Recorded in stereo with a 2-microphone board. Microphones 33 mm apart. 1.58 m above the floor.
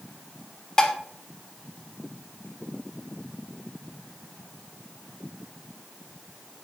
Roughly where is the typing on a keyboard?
No typing on a keyboard in this recording.